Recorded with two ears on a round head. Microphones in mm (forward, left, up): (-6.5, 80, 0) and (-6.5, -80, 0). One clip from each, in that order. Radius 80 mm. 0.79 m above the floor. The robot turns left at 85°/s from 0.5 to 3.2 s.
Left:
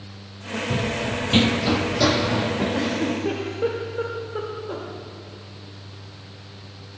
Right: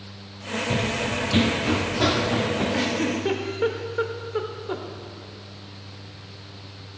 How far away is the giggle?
About 1.0 m.